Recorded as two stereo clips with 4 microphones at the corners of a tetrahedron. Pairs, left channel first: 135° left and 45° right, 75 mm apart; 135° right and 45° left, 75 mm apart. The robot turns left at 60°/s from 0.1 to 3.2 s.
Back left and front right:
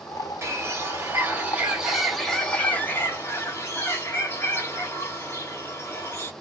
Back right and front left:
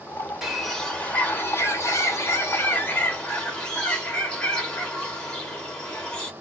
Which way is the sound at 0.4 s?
35° right.